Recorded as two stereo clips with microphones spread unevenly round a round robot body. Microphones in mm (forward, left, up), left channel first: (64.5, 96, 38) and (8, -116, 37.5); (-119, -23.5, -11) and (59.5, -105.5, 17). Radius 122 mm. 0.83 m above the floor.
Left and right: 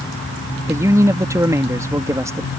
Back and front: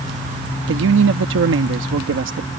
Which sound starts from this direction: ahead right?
A man speaking, at 0.7 s.